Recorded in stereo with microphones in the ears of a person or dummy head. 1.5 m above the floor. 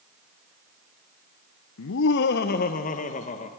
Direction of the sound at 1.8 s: 75° left (ahead or behind).